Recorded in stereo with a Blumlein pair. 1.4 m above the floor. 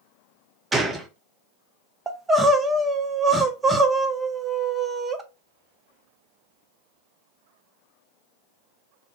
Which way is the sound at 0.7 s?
10° right.